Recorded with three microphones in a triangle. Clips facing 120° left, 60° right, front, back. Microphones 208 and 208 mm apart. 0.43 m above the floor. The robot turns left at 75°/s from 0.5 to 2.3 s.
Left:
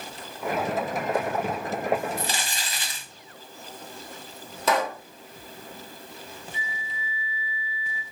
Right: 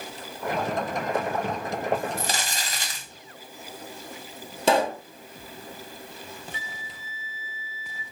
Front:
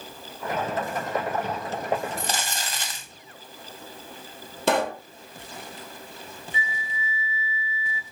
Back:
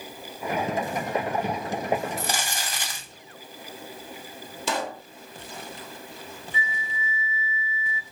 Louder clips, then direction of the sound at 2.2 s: Right 1 dB, even; 90° right.